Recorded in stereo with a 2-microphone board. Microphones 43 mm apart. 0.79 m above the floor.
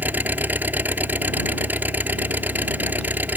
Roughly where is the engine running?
Right.